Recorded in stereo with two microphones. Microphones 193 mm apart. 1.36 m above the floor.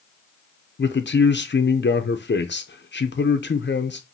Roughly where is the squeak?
No squeak in this recording.